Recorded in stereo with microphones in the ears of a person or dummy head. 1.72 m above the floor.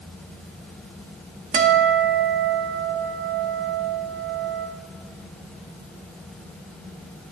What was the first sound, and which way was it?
A guitar, 40° right (ahead or behind).